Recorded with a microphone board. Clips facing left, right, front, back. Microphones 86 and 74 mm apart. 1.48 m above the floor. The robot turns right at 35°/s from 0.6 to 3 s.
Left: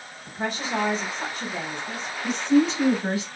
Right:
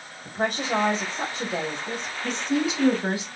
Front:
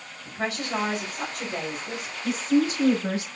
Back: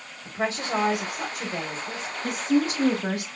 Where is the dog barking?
I don't hear a dog barking.